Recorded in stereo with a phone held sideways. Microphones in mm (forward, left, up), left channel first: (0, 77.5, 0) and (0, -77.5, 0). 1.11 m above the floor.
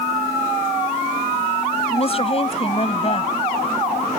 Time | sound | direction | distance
1.9 | a woman speaking | 40° left (ahead or behind) | ?